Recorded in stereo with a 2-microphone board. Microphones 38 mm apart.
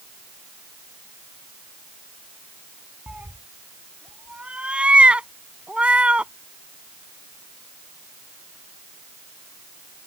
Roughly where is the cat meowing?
Right.